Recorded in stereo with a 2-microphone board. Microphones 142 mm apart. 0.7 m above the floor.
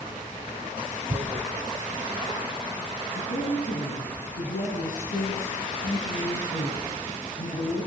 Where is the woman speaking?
80° left, 6 m.